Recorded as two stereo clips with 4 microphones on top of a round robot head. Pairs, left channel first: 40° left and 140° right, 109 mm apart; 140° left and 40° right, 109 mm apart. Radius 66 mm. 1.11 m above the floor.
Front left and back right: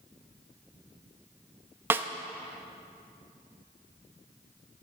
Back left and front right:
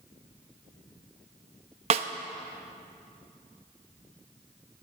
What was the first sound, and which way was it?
A snare drum, 70° right.